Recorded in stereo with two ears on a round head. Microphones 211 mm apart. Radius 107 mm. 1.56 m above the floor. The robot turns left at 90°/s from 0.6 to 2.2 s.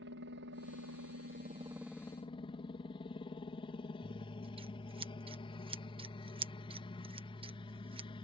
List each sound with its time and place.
0.0 s a helicopter: 60° right; by 8.2 s 155° left
4.0 s scissors: 25° right (ahead or behind)